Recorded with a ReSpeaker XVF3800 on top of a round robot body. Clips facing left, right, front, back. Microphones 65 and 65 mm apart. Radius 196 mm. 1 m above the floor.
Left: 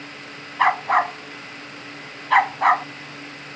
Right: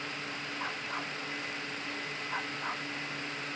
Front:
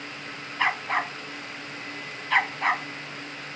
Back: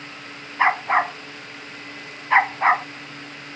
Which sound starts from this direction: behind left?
A dog barking, at 0.6 s.